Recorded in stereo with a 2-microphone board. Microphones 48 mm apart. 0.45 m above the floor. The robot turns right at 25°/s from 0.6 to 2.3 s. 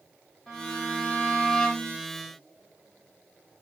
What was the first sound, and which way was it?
A violin, 5° left (ahead or behind).